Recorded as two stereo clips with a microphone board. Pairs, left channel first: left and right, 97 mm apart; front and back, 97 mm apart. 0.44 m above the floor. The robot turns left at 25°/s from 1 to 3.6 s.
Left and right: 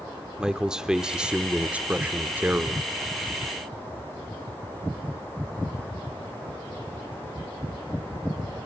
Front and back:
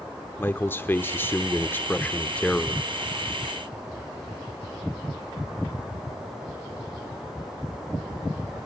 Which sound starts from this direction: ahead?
A man speaking, at 0.4 s.